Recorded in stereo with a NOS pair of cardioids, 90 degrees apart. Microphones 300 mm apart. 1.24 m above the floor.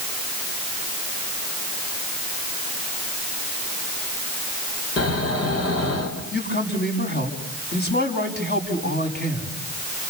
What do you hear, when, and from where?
5.0 s snoring: 55° left, 6 m
6.3 s a man speaking: 35° left, 7 m